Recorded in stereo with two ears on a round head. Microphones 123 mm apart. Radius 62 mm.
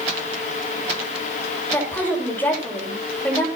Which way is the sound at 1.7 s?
15° left (ahead or behind).